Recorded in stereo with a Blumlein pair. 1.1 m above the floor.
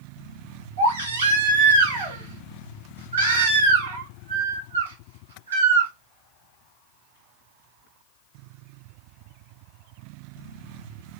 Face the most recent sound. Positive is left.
turn(degrees=-70)